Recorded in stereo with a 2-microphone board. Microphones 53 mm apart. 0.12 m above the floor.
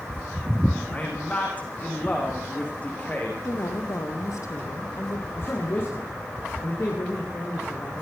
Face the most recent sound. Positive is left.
turn(degrees=45)  # may be behind; listen again after turning